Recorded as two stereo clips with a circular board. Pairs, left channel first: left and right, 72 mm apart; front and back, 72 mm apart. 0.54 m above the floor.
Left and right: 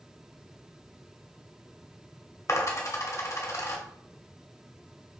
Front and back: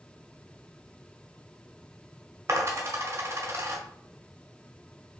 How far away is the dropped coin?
About 1.0 m.